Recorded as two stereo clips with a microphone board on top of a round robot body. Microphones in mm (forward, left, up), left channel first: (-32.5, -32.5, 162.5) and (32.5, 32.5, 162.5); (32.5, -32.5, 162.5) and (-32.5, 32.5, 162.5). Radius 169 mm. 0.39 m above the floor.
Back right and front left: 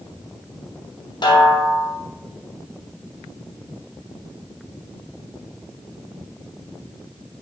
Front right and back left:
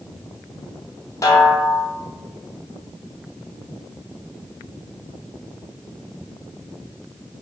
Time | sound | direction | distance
1.2 | a snare drum | 100° right | 3 m